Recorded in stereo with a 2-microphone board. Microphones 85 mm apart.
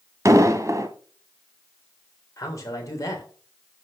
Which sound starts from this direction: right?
An explosion, at 0.2 s.